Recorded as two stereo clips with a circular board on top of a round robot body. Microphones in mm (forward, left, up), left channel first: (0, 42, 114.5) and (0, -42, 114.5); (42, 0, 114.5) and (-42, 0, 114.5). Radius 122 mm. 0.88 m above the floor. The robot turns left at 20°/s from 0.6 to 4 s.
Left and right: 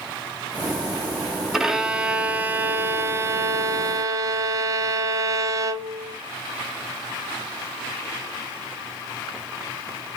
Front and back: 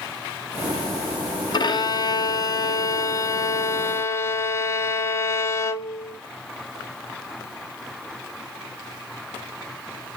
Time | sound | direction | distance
1.5 | a violin | 5° right | 0.7 m